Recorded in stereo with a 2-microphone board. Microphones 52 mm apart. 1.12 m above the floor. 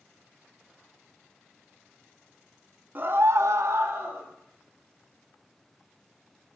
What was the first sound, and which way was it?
A scream, 35° right (ahead or behind).